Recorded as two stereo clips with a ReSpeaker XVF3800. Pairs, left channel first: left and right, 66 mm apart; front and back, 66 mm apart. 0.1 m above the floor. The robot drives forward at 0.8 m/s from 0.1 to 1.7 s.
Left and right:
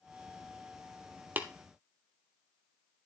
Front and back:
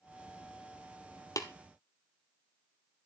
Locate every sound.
1.4 s tapping: 30° right, 1.2 m